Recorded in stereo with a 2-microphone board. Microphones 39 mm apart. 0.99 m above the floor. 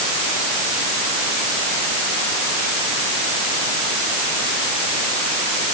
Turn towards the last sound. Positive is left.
No sound to turn to.